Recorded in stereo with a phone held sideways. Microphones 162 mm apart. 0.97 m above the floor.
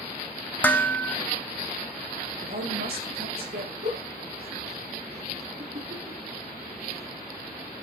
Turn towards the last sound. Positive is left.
turn(degrees=-80)